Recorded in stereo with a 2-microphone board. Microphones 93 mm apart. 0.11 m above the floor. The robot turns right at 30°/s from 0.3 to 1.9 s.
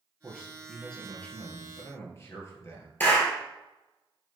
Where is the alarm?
No alarm in this recording.